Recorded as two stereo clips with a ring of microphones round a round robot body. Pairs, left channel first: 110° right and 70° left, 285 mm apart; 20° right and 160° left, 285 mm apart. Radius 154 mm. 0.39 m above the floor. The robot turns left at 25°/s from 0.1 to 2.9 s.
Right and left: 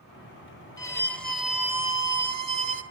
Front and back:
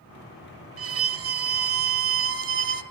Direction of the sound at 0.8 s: 175° left.